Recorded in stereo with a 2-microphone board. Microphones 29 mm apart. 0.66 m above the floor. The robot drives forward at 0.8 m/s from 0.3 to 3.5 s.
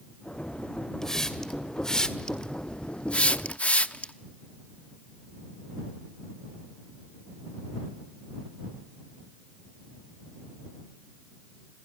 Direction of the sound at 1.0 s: 15° left (ahead or behind).